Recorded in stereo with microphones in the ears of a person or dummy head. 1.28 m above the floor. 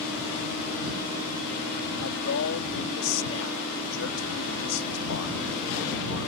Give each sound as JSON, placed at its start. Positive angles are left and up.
{"t": 2.0, "sound": "a man speaking", "side_deg": 70}